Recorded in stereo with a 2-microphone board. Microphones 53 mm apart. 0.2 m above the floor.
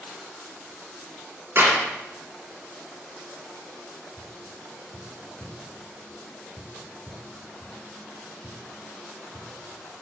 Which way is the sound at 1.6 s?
50° right (ahead or behind).